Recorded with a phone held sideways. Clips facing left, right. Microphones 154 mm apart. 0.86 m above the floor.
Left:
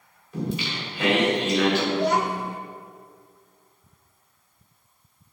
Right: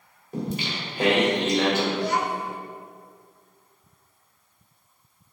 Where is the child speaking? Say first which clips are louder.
Left 3 dB; 55° left (ahead or behind), 0.6 m.